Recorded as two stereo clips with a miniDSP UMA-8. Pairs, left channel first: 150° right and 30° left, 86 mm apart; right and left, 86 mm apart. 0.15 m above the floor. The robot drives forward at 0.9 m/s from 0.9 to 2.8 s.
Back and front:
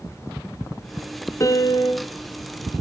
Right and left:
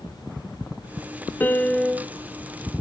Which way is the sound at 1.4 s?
140° right.